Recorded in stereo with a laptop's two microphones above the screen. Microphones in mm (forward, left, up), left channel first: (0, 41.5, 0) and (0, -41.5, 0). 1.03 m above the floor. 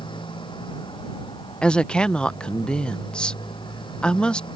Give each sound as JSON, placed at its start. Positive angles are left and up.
{"t": 0.0, "sound": "a motorcycle", "side_deg": 75}
{"t": 1.6, "sound": "a woman speaking", "side_deg": 10}